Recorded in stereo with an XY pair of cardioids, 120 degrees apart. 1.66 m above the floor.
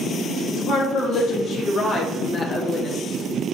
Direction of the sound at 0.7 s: 70° left.